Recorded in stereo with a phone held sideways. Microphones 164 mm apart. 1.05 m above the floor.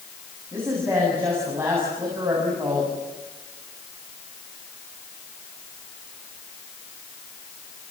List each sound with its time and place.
0.5 s a woman speaking: 15° right (ahead or behind), 8 m